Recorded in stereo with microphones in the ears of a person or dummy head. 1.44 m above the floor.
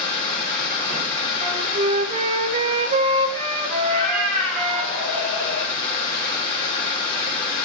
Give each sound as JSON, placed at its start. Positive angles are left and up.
{"t": 0.0, "sound": "running water", "side_deg": 60, "distance_m": 3.0}
{"t": 1.4, "sound": "a flute", "side_deg": -30, "distance_m": 1.3}
{"t": 3.8, "sound": "a cat meowing", "side_deg": 45, "distance_m": 3.0}